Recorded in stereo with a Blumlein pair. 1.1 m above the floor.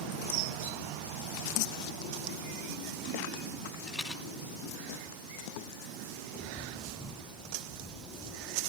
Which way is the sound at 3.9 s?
Straight ahead.